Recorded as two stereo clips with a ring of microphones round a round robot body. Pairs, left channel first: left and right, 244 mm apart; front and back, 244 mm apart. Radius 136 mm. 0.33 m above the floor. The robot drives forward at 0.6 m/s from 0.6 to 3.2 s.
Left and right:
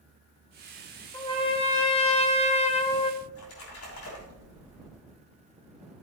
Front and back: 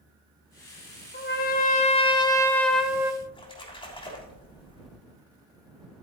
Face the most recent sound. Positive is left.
turn(degrees=70)